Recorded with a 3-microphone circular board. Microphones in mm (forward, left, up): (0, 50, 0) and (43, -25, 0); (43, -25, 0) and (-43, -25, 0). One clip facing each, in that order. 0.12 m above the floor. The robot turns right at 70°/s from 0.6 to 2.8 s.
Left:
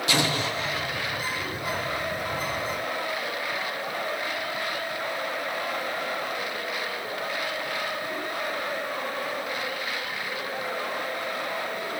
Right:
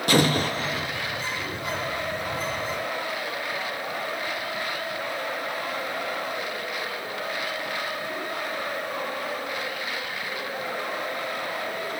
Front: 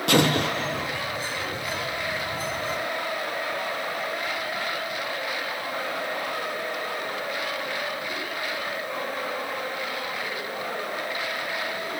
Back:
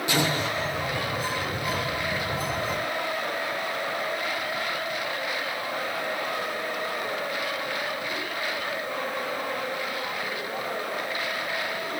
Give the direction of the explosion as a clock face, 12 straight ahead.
1 o'clock.